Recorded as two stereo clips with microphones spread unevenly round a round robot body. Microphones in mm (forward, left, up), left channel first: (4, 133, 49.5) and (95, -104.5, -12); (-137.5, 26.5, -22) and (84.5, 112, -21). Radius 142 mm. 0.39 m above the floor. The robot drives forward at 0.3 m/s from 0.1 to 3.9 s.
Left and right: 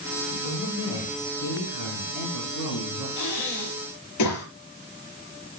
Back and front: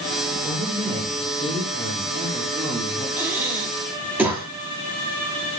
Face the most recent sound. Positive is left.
turn(degrees=105)